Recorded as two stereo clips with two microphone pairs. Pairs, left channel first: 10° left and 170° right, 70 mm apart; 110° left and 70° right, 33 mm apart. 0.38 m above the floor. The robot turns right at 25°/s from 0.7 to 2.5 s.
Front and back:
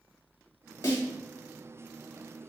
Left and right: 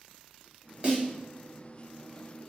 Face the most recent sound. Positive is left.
turn(degrees=20)